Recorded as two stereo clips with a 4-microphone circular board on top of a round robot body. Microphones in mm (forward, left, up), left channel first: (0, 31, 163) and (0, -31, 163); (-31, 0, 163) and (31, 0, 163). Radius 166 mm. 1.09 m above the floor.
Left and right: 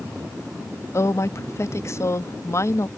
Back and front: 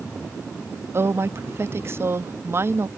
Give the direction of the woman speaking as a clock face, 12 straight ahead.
10 o'clock.